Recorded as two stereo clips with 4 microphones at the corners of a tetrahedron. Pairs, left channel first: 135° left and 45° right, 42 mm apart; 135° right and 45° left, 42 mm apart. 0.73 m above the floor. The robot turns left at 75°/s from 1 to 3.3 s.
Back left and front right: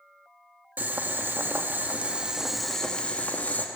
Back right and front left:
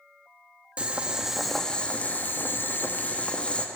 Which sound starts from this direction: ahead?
Boiling, at 0.8 s.